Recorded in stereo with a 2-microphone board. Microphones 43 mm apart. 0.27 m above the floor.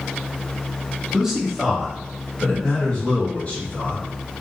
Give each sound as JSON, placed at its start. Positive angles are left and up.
{"t": 1.1, "sound": "a man speaking", "side_deg": -15, "distance_m": 1.3}